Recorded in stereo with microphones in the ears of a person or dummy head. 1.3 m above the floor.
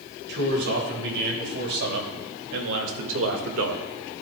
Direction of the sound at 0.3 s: 60° right (ahead or behind).